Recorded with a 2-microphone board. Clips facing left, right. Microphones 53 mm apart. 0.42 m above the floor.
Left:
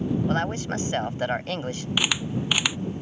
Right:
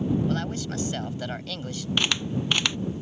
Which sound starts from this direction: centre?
A camera shutter, at 2.0 s.